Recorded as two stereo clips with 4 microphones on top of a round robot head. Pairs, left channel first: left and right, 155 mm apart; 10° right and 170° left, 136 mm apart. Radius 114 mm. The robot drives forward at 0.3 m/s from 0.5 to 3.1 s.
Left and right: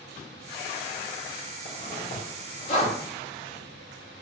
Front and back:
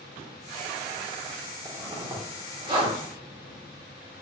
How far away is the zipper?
About 1.1 m.